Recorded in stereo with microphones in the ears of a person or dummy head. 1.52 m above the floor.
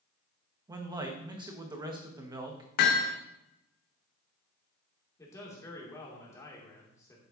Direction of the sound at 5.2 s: 20° left (ahead or behind).